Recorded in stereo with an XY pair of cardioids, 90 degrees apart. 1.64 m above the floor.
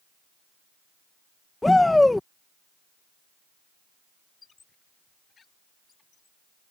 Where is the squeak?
45° left.